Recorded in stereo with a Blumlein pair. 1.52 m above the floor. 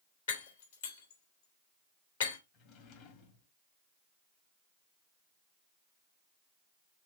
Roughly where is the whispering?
I don't hear whispering.